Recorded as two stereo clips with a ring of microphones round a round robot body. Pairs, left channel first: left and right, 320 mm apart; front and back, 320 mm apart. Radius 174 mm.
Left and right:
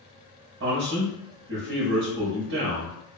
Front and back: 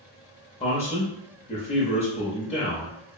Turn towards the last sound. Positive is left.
turn(degrees=-60)